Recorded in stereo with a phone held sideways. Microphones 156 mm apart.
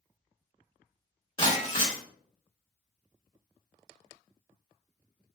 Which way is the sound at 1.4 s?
30° left (ahead or behind).